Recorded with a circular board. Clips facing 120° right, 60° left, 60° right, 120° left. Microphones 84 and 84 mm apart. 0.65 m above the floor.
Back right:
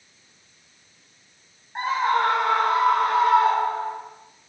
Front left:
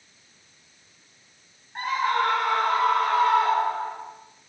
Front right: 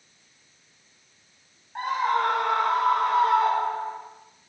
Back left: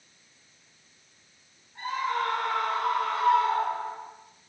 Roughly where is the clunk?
I don't hear a clunk.